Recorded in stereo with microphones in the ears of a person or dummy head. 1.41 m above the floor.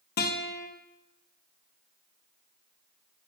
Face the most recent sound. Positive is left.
turn(degrees=45)  # may be behind; listen again after turning